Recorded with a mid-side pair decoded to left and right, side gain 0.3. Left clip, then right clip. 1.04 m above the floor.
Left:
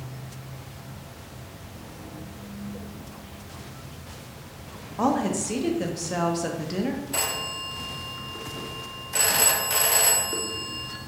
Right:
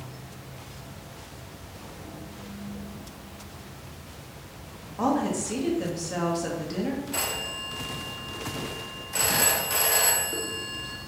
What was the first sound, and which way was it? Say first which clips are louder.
An insect: left 1 dB; 55° left.